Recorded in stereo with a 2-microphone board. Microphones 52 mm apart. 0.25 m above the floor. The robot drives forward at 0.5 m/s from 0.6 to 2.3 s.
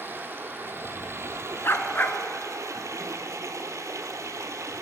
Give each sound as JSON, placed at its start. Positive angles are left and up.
{"t": 0.0, "sound": "running water", "side_deg": -40, "distance_m": 1.1}
{"t": 1.6, "sound": "a dog barking", "side_deg": 50, "distance_m": 0.6}